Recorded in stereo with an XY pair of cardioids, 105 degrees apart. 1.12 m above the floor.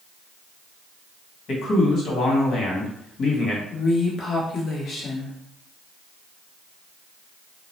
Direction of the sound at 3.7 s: 50° left.